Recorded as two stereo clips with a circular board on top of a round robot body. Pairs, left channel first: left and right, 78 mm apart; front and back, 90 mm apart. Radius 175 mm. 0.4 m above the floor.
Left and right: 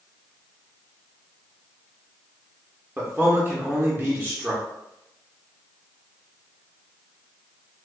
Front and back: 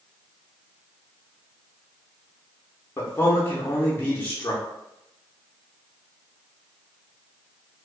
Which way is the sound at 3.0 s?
40° right.